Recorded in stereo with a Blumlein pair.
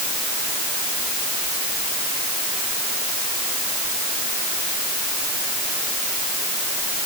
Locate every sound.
Only background noise.